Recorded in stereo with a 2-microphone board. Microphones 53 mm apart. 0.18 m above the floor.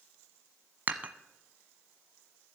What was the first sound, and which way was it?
Dishes clattering, 35° right (ahead or behind).